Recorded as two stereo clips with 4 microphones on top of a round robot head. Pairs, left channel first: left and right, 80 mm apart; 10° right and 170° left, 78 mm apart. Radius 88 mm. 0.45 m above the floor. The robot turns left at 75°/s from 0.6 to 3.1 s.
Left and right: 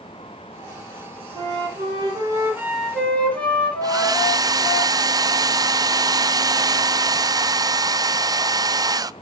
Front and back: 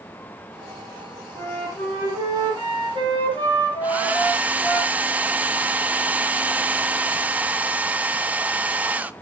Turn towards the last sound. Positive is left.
turn(degrees=-120)